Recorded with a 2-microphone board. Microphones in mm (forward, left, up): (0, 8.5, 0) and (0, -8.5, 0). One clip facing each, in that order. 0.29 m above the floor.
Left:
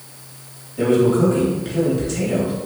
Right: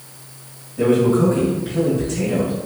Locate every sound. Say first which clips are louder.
0.8 s a man speaking: even; 25° left (ahead or behind), 1.9 m